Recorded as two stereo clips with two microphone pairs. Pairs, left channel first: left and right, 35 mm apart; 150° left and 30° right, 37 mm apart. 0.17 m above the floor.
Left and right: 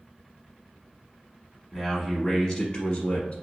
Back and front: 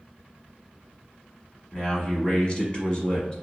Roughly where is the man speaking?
Behind.